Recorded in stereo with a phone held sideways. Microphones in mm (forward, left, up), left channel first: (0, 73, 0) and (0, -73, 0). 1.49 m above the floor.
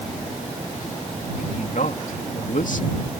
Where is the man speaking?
70° left (ahead or behind).